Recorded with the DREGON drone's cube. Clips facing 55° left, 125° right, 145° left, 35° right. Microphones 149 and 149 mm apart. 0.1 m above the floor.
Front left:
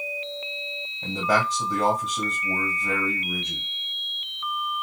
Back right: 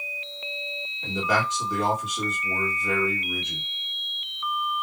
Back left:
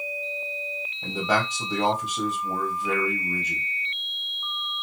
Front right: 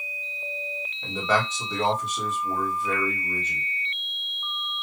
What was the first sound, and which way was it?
A man speaking, 75° left.